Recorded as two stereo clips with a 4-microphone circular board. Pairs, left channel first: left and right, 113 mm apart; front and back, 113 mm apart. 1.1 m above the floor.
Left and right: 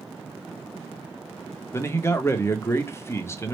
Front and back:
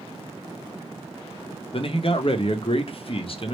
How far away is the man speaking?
About 0.7 m.